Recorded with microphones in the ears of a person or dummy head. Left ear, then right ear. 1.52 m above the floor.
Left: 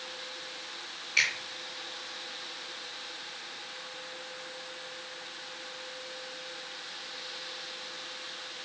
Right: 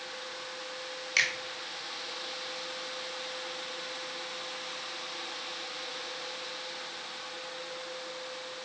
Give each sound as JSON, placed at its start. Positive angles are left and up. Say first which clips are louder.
{"t": 1.2, "sound": "a finger snap", "louder": "left 1 dB", "side_deg": -60, "distance_m": 1.7}